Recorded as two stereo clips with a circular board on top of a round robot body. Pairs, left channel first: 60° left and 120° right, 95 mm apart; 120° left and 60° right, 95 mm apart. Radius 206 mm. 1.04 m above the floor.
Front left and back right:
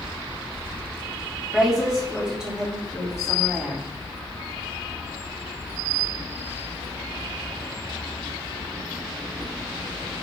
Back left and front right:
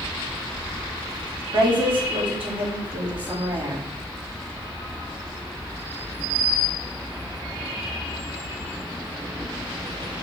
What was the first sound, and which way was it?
A woman speaking, 35° right.